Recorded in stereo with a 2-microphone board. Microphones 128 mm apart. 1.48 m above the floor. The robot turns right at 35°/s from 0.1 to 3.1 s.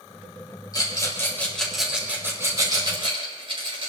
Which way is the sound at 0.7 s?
35° left (ahead or behind).